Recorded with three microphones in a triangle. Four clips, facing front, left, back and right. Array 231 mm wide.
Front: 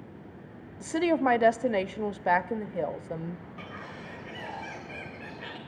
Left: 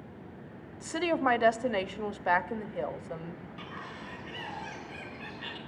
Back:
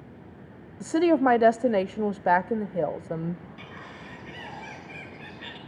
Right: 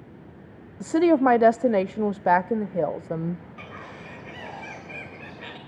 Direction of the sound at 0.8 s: 115° right.